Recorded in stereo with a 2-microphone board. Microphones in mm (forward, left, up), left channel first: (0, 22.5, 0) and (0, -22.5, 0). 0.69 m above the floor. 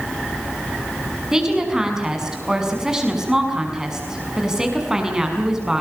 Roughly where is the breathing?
No breathing in this recording.